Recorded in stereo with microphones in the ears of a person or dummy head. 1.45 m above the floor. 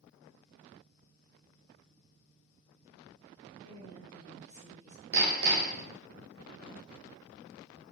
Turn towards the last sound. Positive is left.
turn(degrees=-70)  # may be behind; listen again after turning